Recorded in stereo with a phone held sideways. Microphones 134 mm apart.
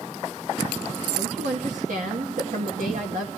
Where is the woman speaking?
75° right (ahead or behind), 2 m.